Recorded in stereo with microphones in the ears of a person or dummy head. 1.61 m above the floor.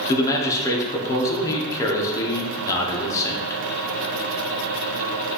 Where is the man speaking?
20° left (ahead or behind), 1.0 m.